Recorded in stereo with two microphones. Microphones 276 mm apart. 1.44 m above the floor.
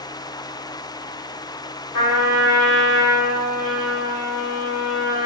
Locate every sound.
1.9 s a trumpet: 75° left (ahead or behind), 1.6 m